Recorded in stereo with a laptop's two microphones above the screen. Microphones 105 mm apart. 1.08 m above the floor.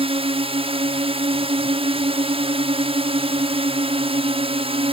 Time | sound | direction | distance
0.0 | a drone | 60° right (ahead or behind) | ?